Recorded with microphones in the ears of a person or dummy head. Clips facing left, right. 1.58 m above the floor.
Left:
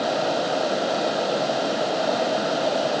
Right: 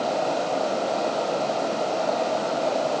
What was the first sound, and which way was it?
Only background noise.